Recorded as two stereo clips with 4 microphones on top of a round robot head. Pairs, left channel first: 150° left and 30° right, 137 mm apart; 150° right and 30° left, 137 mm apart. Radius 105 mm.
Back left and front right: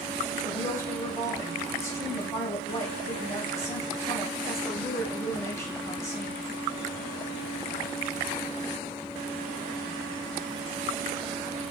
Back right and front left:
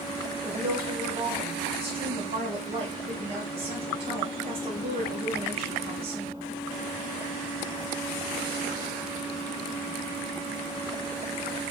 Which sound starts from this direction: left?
A woman speaking, at 0.5 s.